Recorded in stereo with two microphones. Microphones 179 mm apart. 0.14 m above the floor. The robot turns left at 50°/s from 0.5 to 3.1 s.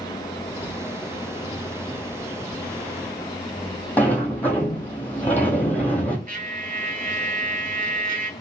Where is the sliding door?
10° left (ahead or behind), 1.0 m.